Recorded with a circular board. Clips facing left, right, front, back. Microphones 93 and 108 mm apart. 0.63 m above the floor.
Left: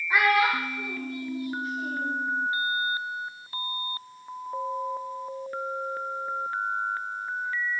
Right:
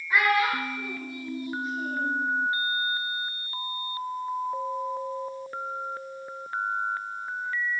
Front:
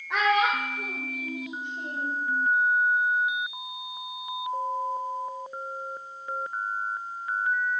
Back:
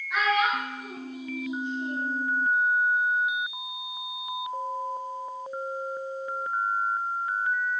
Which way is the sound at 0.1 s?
25° left.